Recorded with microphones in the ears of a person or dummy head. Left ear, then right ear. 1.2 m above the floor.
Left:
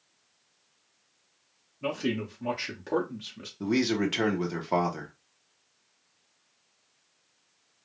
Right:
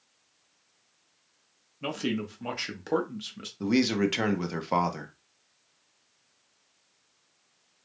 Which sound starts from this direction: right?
A man speaking, at 1.8 s.